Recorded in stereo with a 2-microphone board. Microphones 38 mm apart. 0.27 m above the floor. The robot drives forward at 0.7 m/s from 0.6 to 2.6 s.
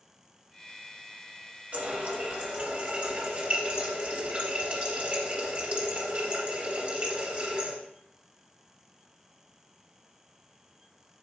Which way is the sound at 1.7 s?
45° right (ahead or behind).